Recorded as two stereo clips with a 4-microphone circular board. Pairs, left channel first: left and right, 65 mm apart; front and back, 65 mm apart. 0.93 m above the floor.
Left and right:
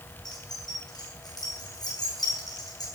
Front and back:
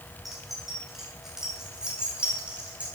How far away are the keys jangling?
About 8.5 m.